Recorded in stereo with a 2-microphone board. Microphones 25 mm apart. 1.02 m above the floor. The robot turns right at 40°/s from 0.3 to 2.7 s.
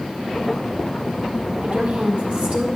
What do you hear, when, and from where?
1.6 s a woman speaking: 90° right, 1.4 m; by 2.8 s 45° right, 1.4 m